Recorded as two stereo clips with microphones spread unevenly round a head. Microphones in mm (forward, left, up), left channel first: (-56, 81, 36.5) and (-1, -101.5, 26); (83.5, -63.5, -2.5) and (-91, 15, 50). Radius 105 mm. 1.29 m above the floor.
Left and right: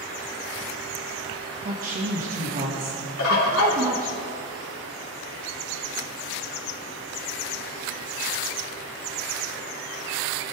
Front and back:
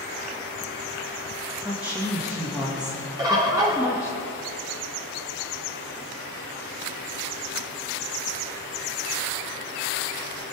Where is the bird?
85° left, 2.5 m.